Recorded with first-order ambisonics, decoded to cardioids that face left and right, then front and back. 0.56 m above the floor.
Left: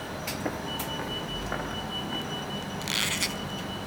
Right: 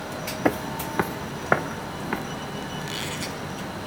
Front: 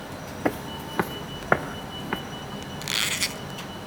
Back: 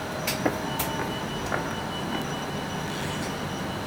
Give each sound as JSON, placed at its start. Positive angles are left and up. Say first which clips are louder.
{"t": 0.5, "sound": "footsteps", "louder": "right 10 dB, front 3 dB", "azimuth_deg": -80, "distance_m": 0.6}
{"t": 2.8, "sound": "a squeak", "louder": "left 6 dB, front 5 dB", "azimuth_deg": 25, "distance_m": 0.8}